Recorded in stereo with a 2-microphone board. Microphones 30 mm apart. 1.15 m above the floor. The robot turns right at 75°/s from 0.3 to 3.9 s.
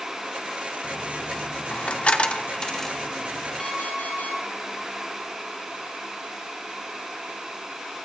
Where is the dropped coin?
5° left (ahead or behind), 0.8 m; by 3.7 s 25° right (ahead or behind), 0.8 m.